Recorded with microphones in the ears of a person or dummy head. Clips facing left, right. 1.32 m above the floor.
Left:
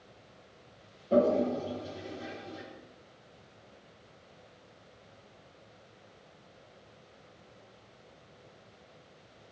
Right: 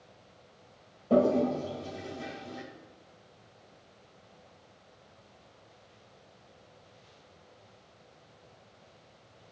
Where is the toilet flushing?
70° right (ahead or behind), 1.9 m.